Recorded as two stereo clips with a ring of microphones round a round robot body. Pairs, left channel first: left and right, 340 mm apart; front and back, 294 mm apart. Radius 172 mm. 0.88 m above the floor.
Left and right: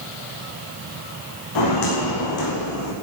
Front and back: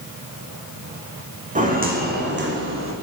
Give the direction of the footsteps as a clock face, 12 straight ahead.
8 o'clock.